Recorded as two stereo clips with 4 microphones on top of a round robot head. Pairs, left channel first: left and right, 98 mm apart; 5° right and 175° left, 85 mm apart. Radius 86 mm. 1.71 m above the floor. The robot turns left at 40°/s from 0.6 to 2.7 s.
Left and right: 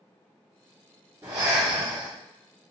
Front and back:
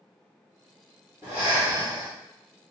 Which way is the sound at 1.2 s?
115° right.